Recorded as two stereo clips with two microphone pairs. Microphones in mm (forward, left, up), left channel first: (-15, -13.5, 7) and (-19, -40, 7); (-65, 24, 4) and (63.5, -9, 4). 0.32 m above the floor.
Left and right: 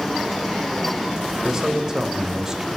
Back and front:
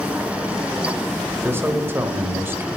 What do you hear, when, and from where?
1.4 s a man speaking: 65° right, 1.3 m